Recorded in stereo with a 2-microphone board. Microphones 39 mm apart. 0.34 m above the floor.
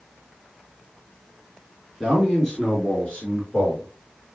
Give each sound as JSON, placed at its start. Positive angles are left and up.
{"t": 2.0, "sound": "a man speaking", "side_deg": 10, "distance_m": 5.5}